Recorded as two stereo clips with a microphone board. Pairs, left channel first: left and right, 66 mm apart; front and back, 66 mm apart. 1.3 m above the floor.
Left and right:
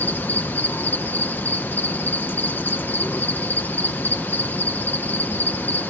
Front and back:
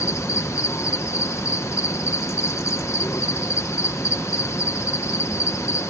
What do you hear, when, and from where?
0.0 s an insect: 30° left